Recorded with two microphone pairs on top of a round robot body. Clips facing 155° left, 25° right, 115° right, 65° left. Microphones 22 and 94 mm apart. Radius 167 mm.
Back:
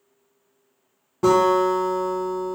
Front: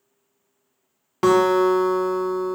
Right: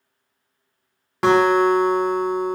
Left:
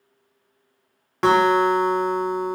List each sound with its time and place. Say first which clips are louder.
1.2 s a guitar: front 1 dB, right 1 dB; 30° right, 0.6 m